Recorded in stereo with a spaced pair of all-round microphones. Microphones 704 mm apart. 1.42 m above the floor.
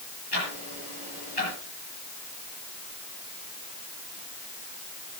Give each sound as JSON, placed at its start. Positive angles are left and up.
{"t": 0.3, "sound": "ticking", "side_deg": 35, "distance_m": 7.5}